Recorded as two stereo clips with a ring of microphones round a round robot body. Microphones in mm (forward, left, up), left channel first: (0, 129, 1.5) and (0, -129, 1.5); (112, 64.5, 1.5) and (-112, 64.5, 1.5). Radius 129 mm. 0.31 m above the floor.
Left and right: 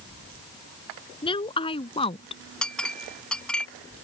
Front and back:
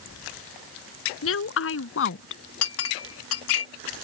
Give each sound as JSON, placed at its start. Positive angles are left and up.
{"t": 1.2, "sound": "a woman speaking", "azimuth_deg": 20}
{"t": 2.6, "sound": "a clink", "azimuth_deg": 5}